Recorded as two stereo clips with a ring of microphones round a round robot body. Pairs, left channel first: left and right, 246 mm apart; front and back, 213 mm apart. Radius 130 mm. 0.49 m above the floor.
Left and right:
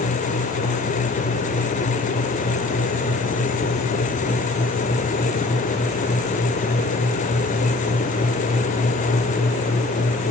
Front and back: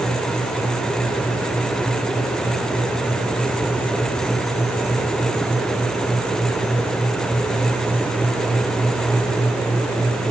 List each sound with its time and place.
Only background noise.